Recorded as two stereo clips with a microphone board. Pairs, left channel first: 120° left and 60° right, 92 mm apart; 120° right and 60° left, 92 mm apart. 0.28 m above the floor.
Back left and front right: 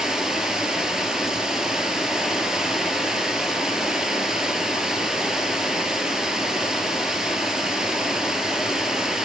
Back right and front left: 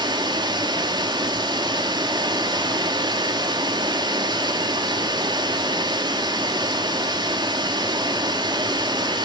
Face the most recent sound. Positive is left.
turn(degrees=25)